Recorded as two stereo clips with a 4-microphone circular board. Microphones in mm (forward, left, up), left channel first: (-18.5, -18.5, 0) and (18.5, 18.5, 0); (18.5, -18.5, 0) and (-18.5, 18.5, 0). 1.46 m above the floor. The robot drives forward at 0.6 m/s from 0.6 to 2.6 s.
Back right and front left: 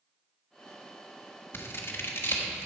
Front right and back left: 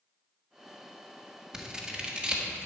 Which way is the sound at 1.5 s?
155° right.